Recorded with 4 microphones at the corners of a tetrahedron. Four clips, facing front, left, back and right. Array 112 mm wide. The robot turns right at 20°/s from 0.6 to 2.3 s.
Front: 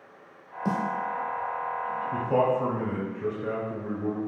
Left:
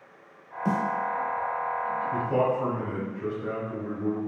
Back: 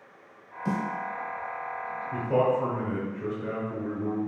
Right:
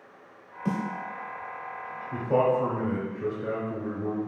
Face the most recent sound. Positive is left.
turn(degrees=-85)